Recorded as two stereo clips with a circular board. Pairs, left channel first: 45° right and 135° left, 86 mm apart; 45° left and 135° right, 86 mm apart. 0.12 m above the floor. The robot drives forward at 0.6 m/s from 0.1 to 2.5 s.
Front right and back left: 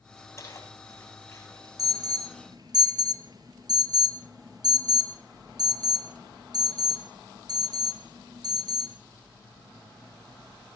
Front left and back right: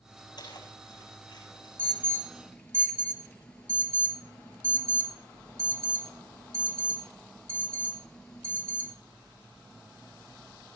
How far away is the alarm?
About 3 m.